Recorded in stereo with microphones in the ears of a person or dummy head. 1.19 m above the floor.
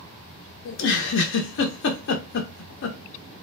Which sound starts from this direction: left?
A giggle, at 0.7 s.